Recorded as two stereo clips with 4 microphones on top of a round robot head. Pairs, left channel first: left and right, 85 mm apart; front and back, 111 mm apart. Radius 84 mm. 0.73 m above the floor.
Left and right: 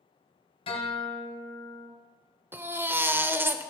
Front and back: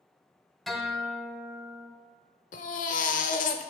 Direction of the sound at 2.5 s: 25° right.